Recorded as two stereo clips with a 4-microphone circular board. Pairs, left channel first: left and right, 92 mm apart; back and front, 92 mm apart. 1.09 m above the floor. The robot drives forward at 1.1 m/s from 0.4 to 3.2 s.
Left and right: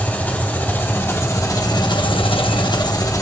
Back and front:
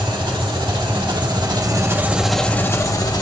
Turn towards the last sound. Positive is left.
turn(degrees=140)